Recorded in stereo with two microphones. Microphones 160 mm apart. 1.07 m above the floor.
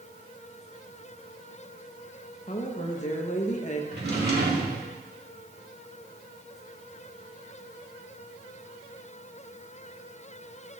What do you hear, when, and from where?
2.5 s a woman speaking: 45° left (ahead or behind), 1.1 m
3.9 s a drawer: 80° right, 1.6 m